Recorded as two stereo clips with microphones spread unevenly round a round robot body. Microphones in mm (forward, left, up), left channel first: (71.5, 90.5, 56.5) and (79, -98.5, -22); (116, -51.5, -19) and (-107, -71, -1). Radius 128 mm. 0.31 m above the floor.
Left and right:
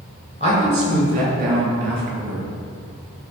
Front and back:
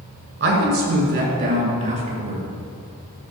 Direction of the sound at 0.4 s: 140° right.